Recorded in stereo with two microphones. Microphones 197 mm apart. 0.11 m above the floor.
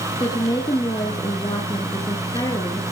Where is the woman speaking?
20° left (ahead or behind), 1.8 m.